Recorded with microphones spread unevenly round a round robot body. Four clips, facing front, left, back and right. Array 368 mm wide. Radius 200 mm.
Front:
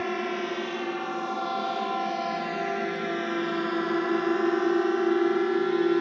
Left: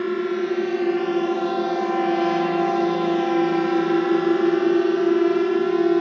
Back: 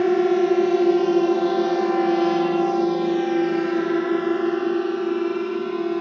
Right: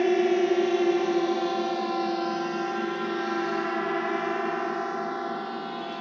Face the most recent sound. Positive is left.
turn(degrees=80)